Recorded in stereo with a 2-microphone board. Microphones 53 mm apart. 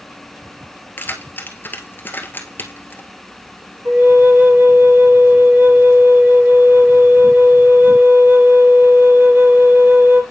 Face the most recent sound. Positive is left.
turn(degrees=-45)  # may be behind; listen again after turning